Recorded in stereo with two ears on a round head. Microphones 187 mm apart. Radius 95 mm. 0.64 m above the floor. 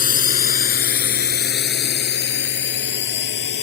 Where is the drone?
45° left (ahead or behind); by 3.6 s 60° left (ahead or behind).